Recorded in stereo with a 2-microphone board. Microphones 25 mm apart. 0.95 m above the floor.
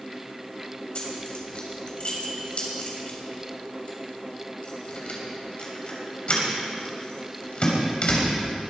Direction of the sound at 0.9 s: 50° left (ahead or behind).